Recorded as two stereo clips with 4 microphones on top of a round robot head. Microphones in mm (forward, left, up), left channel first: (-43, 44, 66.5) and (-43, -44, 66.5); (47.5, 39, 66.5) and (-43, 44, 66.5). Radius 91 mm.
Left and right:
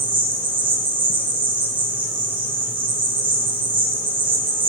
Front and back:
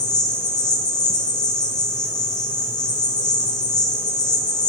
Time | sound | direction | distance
0.0 | an insect | 55° right | 1.5 m